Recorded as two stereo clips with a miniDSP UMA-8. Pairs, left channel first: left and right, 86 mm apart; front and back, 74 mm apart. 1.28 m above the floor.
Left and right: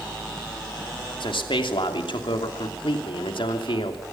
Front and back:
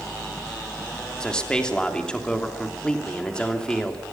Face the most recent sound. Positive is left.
turn(degrees=80)